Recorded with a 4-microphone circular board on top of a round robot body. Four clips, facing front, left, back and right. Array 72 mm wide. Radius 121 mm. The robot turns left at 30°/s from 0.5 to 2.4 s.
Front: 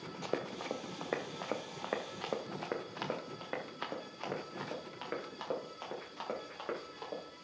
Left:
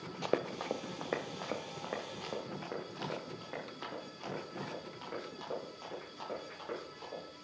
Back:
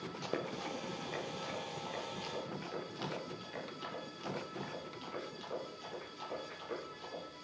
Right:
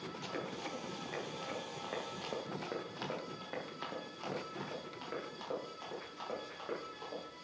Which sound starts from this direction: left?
Running footsteps, at 0.2 s.